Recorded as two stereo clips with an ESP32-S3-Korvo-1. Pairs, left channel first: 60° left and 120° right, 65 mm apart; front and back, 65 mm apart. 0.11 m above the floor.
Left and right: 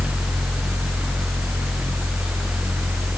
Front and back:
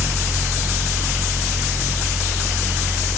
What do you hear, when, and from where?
Only background noise.